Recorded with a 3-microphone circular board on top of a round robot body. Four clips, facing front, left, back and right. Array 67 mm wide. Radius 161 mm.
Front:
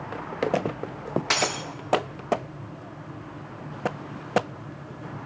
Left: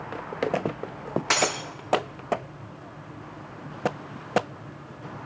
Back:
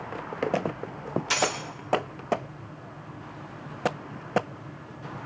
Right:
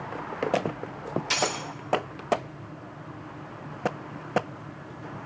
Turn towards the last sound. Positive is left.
turn(degrees=60)